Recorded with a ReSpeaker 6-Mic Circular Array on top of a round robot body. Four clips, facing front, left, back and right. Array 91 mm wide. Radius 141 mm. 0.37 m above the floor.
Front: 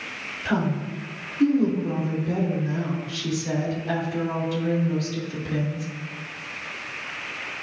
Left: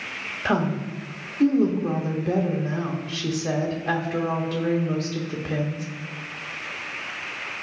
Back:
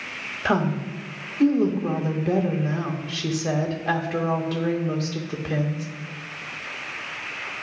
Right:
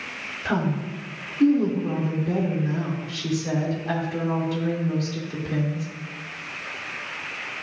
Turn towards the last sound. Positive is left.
turn(degrees=150)